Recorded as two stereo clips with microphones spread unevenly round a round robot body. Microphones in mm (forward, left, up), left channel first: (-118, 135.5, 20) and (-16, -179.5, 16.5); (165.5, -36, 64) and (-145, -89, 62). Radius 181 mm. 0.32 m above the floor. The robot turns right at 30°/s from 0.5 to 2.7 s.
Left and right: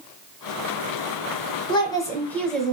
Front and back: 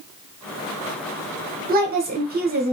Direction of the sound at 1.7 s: 170° left.